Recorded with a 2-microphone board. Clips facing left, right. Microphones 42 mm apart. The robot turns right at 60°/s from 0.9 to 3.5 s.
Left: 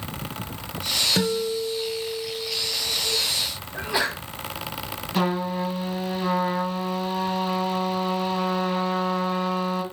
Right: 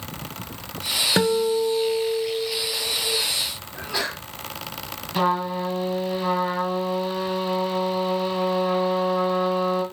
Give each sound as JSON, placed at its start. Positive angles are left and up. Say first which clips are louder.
{"t": 1.2, "sound": "a guitar", "louder": "right 9 dB", "azimuth_deg": -145, "distance_m": 0.8}
{"t": 3.7, "sound": "a sneeze", "louder": "left 3 dB", "side_deg": 20, "distance_m": 3.5}
{"t": 5.2, "sound": "a trumpet", "louder": "right 2 dB", "side_deg": -10, "distance_m": 2.5}